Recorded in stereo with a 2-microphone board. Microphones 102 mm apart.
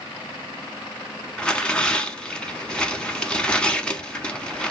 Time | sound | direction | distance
1.4 | tearing paper | 10° left (ahead or behind) | 0.6 m